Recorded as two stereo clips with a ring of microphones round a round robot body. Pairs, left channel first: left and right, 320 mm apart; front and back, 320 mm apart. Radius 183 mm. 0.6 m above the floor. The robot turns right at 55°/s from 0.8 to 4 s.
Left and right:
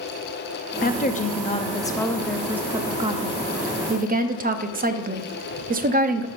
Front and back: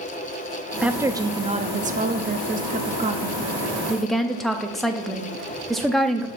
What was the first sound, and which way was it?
A woman speaking, 95° left.